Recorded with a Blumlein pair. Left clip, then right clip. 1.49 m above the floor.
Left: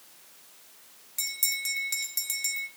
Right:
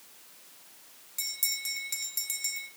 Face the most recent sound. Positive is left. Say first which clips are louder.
# left 3 dB
turn(degrees=10)